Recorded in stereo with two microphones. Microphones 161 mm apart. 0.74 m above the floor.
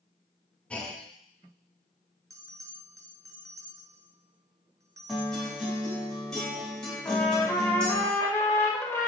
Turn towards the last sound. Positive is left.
turn(degrees=15)  # may be behind; listen again after turning